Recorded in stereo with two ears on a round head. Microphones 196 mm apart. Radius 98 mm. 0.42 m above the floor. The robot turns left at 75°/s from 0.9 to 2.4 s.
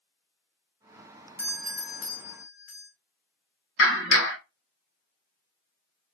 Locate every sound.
1.4 s a doorbell: 165° right, 1.9 m; by 2.9 s 120° left, 1.9 m
3.8 s a clap: 65° left (ahead or behind), 3 m